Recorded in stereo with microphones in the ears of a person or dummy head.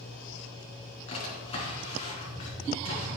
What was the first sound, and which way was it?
A drawer, 30° left (ahead or behind).